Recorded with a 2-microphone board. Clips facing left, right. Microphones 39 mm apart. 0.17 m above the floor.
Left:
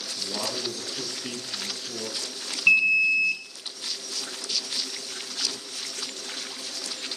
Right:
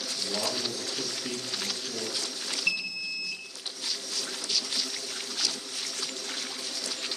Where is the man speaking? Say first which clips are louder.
Even; 35° left (ahead or behind), 2.5 m.